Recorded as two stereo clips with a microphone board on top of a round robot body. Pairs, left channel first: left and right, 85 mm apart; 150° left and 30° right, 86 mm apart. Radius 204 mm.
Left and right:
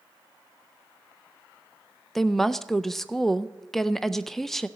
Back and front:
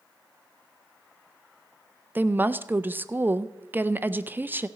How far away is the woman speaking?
About 0.6 m.